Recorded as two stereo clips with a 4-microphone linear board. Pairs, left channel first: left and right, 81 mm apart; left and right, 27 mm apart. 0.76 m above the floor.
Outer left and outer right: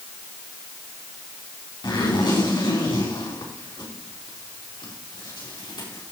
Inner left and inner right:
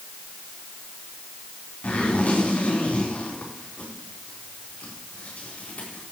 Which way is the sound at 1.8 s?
65° left (ahead or behind).